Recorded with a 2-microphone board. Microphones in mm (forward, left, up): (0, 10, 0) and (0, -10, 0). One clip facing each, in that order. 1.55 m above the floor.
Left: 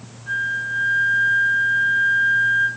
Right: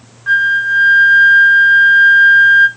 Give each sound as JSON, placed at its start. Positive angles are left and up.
{"t": 0.3, "sound": "a flute", "side_deg": -50, "distance_m": 1.0}